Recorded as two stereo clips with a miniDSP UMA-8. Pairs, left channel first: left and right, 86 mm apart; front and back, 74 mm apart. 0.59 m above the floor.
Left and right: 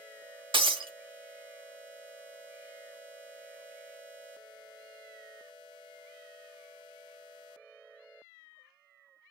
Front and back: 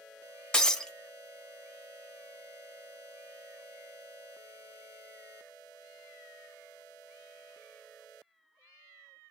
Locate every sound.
0.5 s breaking glass: 80° right, 0.8 m